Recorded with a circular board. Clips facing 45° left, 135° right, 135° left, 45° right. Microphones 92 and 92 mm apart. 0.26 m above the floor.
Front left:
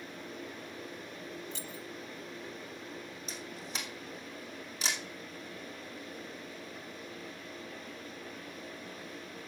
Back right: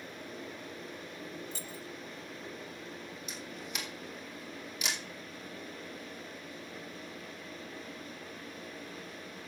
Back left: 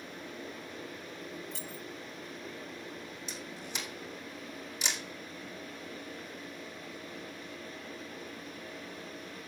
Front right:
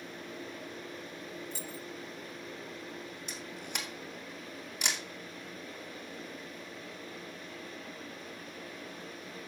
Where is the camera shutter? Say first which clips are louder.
Front left 1 dB, even; 10° right, 2.5 m.